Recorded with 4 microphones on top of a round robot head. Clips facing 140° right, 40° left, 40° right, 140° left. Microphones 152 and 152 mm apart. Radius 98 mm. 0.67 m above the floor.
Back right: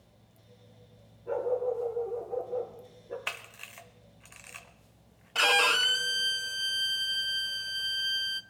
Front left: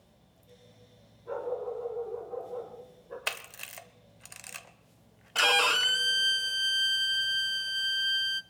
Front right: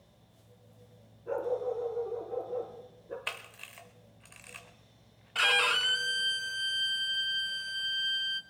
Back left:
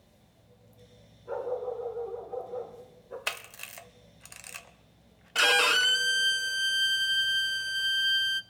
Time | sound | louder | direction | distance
1.3 | a dog barking | back right 5 dB, front right 1 dB | 70° right | 4 m
3.3 | a camera shutter | front left 3 dB, back left 4 dB | 90° left | 0.8 m
5.3 | a violin | even, back left 5 dB | 135° left | 0.7 m